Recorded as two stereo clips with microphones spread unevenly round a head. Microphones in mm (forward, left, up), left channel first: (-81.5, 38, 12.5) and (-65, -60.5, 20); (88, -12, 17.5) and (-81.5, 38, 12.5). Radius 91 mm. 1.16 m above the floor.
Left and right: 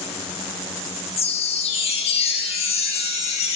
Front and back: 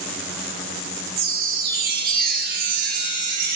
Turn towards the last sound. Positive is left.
turn(degrees=125)